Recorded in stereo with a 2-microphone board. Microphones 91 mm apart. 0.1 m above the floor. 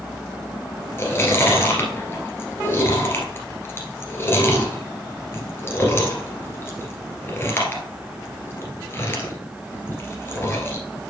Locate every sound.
1.0 s chewing: 30° left (ahead or behind), 1.9 m